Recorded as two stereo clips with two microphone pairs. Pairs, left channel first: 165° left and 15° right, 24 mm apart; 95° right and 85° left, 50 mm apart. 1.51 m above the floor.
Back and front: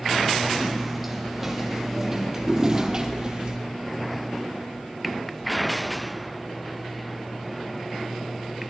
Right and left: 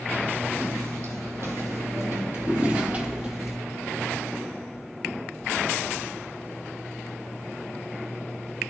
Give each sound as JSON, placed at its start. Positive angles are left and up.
{"t": 0.6, "sound": "footsteps", "azimuth_deg": 70, "distance_m": 3.5}